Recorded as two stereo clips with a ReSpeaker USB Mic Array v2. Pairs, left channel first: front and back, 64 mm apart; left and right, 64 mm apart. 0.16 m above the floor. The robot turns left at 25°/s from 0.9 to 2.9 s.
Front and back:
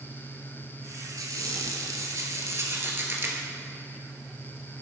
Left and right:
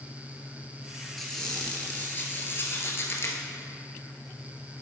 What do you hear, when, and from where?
1.2 s a squeak: 175° left, 1.2 m; by 3.4 s 130° left, 1.2 m